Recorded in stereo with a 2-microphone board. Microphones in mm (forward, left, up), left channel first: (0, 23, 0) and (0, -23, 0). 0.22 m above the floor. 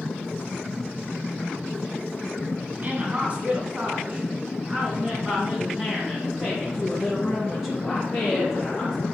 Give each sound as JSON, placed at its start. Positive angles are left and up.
{"t": 2.8, "sound": "a woman speaking", "side_deg": -35, "distance_m": 2.0}